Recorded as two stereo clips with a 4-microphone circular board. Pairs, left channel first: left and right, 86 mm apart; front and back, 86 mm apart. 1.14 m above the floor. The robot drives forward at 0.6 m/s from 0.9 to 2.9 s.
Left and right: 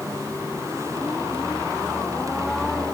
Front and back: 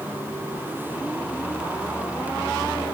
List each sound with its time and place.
Only background noise.